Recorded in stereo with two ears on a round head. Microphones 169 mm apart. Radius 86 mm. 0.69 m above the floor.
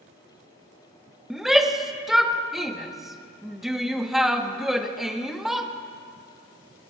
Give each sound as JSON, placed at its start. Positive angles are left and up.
{"t": 1.3, "sound": "a shout", "side_deg": 0, "distance_m": 0.7}